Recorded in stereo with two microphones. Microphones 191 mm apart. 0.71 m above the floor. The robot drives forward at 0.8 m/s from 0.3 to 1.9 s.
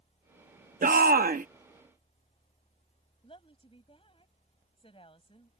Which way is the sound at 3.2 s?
30° left (ahead or behind).